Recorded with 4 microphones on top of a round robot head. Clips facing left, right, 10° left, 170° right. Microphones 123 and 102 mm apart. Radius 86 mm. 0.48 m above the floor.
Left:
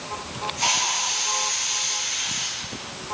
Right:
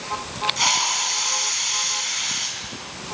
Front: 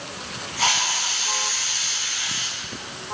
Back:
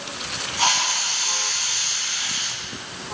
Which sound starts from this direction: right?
A hiss, at 0.6 s.